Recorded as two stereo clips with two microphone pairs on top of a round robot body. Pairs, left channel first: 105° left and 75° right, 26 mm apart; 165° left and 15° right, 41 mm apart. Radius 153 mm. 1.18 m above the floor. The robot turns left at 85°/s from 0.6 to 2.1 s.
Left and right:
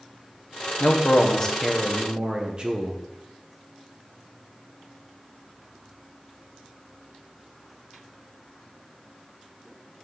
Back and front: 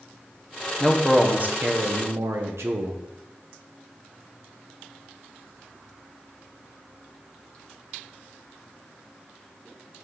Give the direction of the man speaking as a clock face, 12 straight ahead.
9 o'clock.